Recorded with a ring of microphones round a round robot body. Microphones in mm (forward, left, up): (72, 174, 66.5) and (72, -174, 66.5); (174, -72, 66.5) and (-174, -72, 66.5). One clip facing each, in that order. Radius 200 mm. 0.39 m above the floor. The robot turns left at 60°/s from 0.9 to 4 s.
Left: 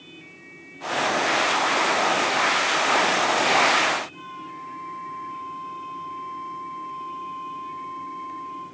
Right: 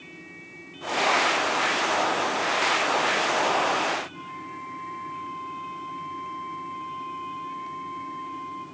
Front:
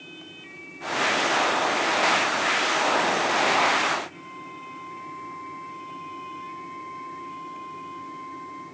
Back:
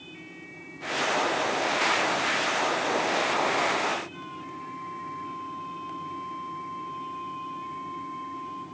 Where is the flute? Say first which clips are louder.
Right 1 dB, back 2 dB; 60° right, 2.5 m.